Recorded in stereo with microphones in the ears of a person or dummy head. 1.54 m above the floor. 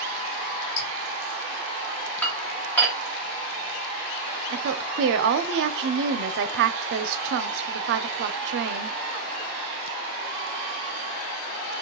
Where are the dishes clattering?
5° left (ahead or behind), 1.2 m.